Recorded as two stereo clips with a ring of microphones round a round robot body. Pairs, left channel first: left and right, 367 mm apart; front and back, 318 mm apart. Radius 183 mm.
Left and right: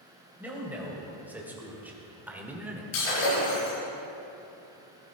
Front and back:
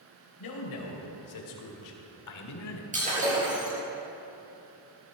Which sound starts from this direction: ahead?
A man speaking, at 0.4 s.